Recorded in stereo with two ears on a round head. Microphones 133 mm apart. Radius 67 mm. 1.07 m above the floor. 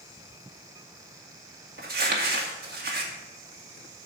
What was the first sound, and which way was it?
Crumpling, 70° right (ahead or behind).